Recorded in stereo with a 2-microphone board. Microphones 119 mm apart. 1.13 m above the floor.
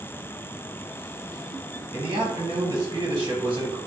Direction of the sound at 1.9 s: 40° right (ahead or behind).